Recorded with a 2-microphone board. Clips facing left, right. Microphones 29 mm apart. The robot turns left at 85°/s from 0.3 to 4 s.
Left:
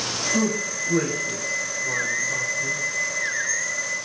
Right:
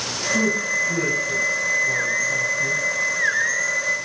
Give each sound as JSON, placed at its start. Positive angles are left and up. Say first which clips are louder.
{"t": 0.3, "sound": "a man speaking", "louder": "right 5 dB", "side_deg": 30, "distance_m": 6.0}